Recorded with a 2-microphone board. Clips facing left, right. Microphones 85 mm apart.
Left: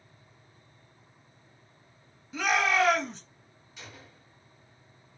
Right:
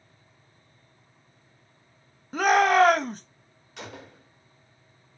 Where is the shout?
50° right (ahead or behind), 0.7 m.